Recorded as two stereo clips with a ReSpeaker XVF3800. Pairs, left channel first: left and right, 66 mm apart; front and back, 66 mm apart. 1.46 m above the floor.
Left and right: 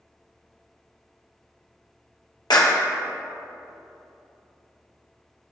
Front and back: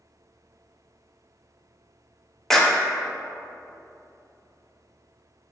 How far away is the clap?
About 1.1 m.